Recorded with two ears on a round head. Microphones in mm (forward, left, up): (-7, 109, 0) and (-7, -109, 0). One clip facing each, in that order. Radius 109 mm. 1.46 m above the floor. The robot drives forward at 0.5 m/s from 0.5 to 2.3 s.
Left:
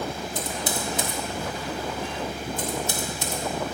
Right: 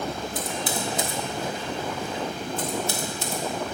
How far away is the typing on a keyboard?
About 1.0 m.